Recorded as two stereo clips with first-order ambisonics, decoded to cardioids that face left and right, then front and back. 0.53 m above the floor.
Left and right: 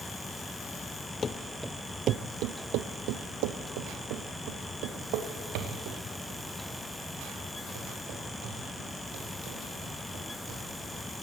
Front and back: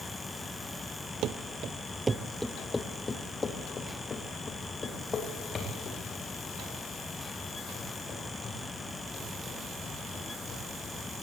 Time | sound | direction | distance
1.2 | running footsteps | 150° left | 0.7 m